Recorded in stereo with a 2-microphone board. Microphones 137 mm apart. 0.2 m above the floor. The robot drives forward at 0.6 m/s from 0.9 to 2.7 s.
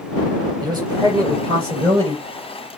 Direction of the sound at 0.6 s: 30° right (ahead or behind).